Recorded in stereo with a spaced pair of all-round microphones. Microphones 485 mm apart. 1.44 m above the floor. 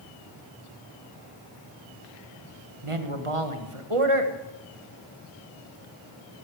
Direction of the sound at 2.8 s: 85° right.